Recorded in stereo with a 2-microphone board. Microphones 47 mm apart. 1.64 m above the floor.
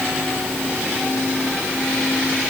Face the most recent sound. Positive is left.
No sound to turn to.